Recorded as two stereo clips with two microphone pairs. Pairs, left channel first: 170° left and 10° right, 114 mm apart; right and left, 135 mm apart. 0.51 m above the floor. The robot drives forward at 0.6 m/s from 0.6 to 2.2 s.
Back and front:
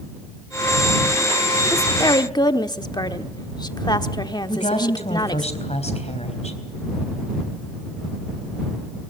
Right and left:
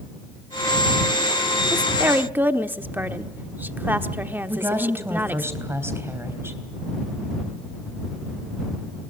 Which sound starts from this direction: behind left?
A woman speaking, at 1.7 s.